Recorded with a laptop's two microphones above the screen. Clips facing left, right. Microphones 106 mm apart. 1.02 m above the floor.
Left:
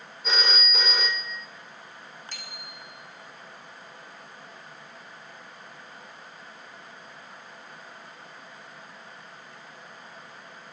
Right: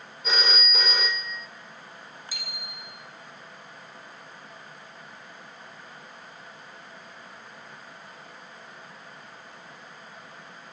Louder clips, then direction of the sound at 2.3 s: Right 1 dB; 10° right (ahead or behind).